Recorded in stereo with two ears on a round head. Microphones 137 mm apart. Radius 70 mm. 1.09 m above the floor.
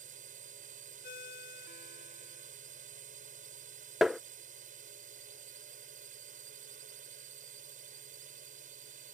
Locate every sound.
0.0 s a drone: 50° right (ahead or behind)
1.0 s a ringtone: 60° left (ahead or behind)
4.0 s tapping: centre (ahead or behind)